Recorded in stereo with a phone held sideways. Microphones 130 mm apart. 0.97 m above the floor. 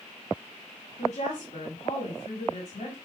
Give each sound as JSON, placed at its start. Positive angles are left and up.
{"t": 1.0, "sound": "a woman speaking", "side_deg": 60, "distance_m": 3.0}